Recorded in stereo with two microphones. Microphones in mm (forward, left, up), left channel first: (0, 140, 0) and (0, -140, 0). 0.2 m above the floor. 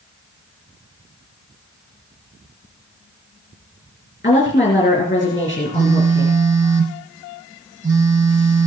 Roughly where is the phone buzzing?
Right.